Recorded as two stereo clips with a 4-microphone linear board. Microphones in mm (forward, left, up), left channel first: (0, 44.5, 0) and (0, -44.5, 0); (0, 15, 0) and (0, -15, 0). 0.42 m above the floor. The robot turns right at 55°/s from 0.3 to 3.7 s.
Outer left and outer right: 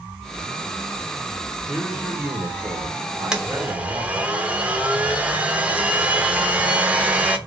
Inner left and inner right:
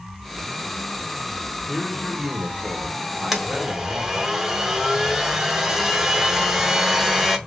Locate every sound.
1.7 s a man speaking: 160° right, 1.0 m; by 4.3 s 50° right, 1.0 m
3.3 s a blender: 10° right (ahead or behind), 0.7 m; by 7.4 s 15° right (ahead or behind), 0.7 m